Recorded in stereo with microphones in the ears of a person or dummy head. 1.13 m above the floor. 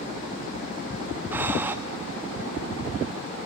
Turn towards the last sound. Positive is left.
turn(degrees=-10)  # may be behind; listen again after turning